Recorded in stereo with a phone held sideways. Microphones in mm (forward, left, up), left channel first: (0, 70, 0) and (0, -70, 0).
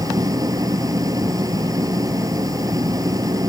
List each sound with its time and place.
0.0 s an engine running: 25° right (ahead or behind)